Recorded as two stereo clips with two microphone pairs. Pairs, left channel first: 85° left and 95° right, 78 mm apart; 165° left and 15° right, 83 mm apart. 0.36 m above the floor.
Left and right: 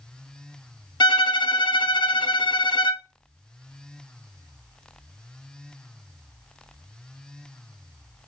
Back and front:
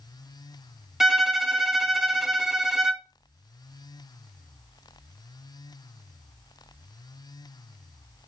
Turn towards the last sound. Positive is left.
turn(degrees=70)